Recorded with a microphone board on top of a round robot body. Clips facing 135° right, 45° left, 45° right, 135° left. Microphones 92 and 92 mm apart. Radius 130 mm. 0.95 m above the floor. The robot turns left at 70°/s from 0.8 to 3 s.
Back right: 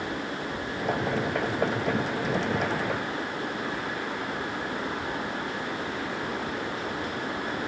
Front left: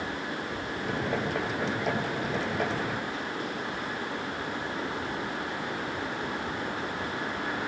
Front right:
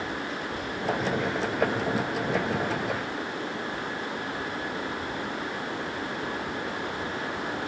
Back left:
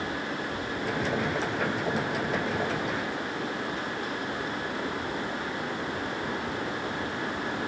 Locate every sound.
Only background noise.